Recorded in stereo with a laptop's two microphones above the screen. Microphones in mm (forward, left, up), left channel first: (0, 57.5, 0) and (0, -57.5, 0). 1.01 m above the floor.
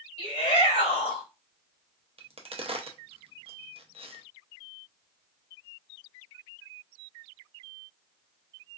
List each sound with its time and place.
0.2 s a shout: 70° left (ahead or behind), 2 m
2.2 s a crack: 60° right (ahead or behind), 0.5 m